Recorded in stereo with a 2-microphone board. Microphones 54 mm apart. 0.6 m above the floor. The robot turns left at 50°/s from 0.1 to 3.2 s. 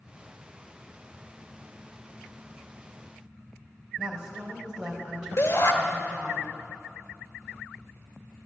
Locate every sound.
4.0 s a woman speaking: 15° right (ahead or behind), 4 m
5.4 s a shout: 60° left (ahead or behind), 1.4 m